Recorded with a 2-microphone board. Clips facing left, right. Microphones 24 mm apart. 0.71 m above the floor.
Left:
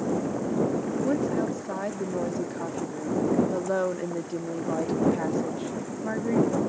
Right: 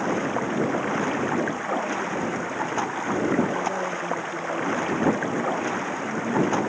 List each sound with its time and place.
0.0 s running water: 50° right (ahead or behind)
1.0 s a woman speaking: 45° left (ahead or behind)